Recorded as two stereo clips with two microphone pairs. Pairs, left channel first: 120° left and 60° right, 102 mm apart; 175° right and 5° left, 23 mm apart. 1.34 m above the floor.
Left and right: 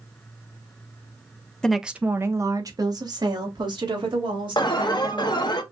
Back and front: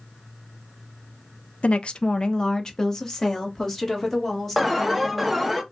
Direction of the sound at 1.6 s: 160° right.